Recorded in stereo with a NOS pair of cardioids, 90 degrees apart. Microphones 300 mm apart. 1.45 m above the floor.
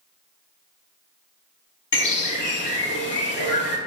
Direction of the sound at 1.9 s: 40° left.